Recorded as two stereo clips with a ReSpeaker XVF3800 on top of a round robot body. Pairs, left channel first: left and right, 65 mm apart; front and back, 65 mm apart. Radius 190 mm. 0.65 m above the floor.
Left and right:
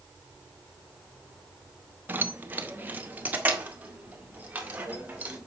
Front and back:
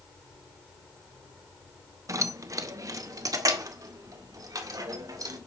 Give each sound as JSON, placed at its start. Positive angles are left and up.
{"t": 2.1, "sound": "keys jangling", "azimuth_deg": -150, "distance_m": 1.1}